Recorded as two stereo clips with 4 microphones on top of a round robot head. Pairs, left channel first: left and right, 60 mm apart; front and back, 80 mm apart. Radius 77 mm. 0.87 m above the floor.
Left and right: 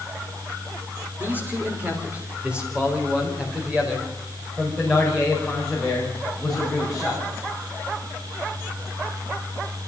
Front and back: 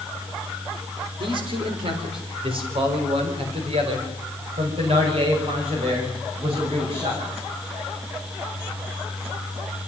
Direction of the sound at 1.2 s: 155° right.